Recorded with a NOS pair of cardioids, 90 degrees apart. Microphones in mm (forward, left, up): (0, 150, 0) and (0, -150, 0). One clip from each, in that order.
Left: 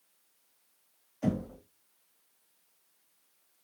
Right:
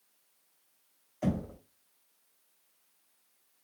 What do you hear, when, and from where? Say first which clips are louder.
1.2 s knocking: left 1 dB; 30° right, 1.1 m